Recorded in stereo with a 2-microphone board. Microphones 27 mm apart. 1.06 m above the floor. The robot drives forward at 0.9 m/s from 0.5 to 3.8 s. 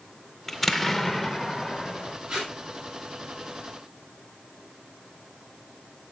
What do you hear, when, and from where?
0.5 s an explosion: 10° left (ahead or behind), 0.5 m; by 2.2 s centre (ahead or behind), 1.9 m
2.3 s tape being pulled: 40° right (ahead or behind), 7.5 m; by 2.5 s 35° right (ahead or behind), 8 m